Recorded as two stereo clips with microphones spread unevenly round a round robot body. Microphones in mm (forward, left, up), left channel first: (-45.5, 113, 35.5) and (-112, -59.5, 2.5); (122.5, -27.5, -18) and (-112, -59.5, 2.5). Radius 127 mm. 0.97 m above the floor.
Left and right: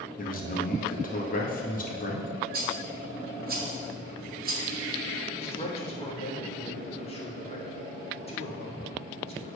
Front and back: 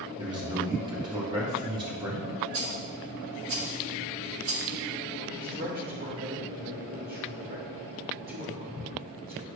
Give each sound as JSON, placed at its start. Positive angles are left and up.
{"t": 0.2, "sound": "a man speaking", "azimuth_deg": 115, "distance_m": 2.0}
{"t": 2.5, "sound": "a rattle", "azimuth_deg": -145, "distance_m": 1.8}
{"t": 5.4, "sound": "a man speaking", "azimuth_deg": 130, "distance_m": 2.5}